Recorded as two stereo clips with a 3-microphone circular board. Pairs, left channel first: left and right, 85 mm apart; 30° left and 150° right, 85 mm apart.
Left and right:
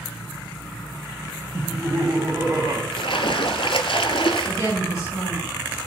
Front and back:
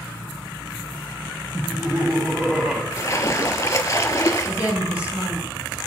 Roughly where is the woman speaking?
Behind left.